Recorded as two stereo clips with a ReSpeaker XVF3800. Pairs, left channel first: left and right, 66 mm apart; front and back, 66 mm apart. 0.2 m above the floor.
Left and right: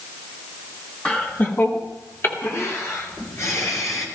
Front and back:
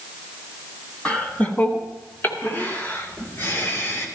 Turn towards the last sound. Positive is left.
turn(degrees=55)